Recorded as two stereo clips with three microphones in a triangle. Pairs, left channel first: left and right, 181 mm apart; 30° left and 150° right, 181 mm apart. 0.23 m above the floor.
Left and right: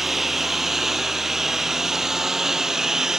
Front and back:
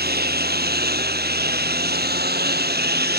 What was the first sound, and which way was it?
A lawn mower, straight behind.